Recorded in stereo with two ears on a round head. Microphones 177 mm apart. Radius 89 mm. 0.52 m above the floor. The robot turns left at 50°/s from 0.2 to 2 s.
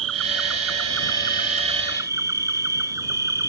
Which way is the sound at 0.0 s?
75° right.